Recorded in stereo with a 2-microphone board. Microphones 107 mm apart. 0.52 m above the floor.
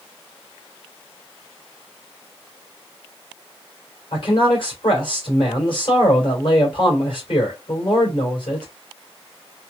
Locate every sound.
4.1 s a man speaking: 55° left (ahead or behind), 2.5 m